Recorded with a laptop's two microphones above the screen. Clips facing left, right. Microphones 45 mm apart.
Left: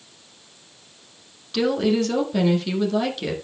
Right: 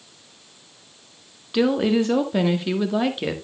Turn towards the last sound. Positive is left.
turn(degrees=-25)  # may be behind; listen again after turning